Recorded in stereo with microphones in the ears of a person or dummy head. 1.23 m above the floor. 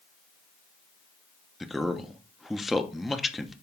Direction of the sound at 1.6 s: Centre (ahead or behind).